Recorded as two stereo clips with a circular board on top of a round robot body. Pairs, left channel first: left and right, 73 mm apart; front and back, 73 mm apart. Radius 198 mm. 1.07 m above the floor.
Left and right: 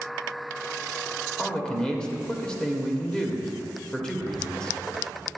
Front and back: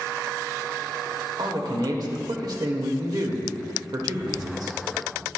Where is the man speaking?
170° left, 1.2 m.